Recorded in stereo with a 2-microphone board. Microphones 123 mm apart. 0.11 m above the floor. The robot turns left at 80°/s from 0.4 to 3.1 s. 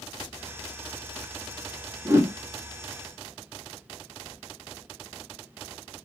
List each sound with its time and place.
2.0 s a whoosh: 25° right (ahead or behind), 0.7 m; by 2.3 s 20° right (ahead or behind), 0.7 m